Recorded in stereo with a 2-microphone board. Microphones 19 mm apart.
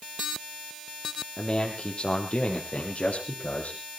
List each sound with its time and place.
1.4 s a man speaking: 40° left (ahead or behind), 3.5 m; by 3.8 s 75° left (ahead or behind), 5 m